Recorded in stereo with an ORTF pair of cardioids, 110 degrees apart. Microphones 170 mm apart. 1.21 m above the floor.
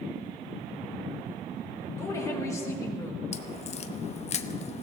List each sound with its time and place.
1.9 s a woman speaking: 20° left, 5 m
3.3 s a crack: 40° left, 1.0 m